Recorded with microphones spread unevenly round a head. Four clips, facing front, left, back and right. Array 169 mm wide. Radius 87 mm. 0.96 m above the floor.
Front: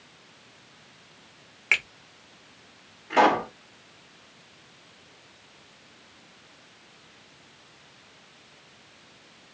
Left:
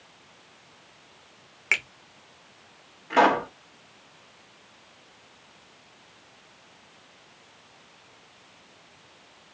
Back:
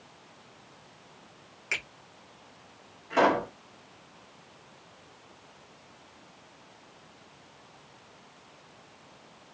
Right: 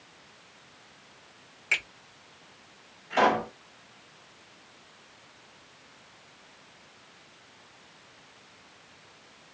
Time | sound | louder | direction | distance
1.7 | a finger snap | left 3 dB, front 8 dB | 40° left | 1.2 m
3.1 | a pop | left 3 dB, front 4 dB | 55° left | 1.6 m